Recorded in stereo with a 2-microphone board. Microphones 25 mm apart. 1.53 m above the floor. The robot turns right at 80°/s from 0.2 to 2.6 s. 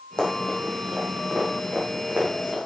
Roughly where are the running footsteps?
Left.